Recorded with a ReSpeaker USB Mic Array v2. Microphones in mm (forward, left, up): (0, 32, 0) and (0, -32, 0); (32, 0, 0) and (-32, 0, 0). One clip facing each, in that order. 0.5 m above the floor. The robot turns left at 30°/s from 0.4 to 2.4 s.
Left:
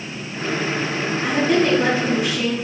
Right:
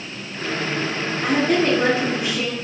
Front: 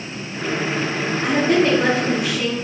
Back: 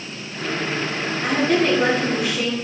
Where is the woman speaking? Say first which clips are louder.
Even, front 2 dB; 50° right, 1.2 m; by 2.5 s 85° right, 1.2 m.